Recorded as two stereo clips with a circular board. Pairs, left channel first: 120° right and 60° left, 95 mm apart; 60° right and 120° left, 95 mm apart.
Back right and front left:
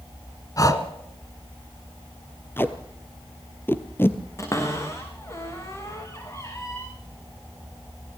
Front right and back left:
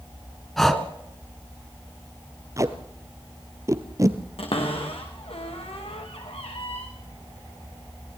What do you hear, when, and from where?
0.6 s breathing: 145° right, 1.8 m
2.6 s tape being pulled: 175° left, 1.4 m
4.4 s a cupboard door: 60° right, 4 m